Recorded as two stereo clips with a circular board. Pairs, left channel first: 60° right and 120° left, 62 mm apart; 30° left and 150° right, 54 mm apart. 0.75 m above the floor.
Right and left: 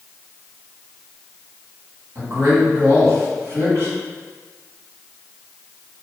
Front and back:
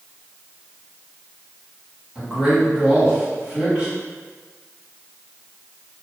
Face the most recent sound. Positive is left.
turn(degrees=135)